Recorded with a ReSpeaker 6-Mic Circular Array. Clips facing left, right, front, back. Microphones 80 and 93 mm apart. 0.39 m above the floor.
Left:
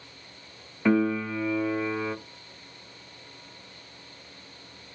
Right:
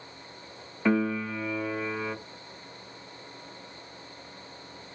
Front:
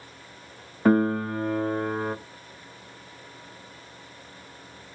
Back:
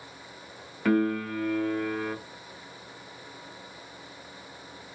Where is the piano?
Straight ahead, 0.5 m.